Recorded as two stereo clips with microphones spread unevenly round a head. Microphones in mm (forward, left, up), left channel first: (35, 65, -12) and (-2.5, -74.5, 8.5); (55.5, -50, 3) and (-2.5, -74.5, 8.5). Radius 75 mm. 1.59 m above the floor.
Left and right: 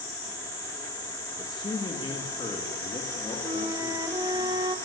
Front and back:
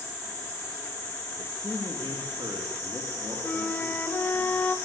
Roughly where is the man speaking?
Behind left.